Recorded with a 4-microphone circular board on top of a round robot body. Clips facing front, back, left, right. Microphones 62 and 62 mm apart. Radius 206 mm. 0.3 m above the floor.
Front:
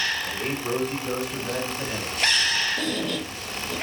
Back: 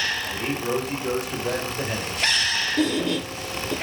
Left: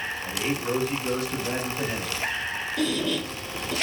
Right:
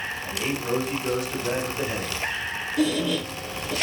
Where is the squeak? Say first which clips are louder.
Back 5 dB, right 3 dB; 165° right, 2 m.